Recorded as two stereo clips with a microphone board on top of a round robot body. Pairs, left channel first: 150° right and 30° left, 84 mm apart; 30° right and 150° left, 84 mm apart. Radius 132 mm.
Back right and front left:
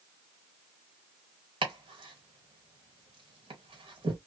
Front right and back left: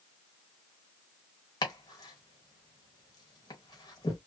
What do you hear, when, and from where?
1.6 s chopping: 15° left, 1.2 m